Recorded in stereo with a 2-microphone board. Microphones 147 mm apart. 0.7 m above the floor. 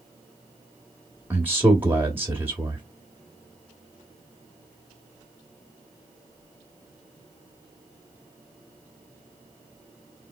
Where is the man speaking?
15° right (ahead or behind), 1.2 m.